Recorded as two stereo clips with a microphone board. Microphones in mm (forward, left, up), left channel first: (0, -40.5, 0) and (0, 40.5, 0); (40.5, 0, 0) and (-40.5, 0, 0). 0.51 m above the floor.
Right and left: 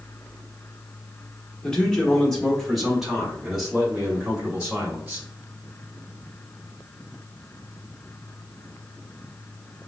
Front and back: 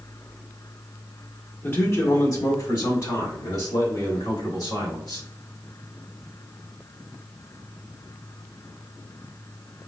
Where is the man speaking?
25° right, 1.0 m; by 5.3 s 10° left, 2.5 m.